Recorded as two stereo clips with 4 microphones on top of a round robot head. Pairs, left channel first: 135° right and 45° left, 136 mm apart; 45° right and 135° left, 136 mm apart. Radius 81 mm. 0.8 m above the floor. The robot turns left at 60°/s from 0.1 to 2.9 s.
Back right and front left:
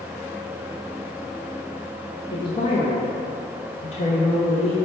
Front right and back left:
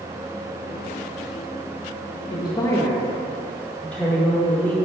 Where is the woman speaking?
85° right, 0.5 m; by 4.8 s 120° right, 0.5 m.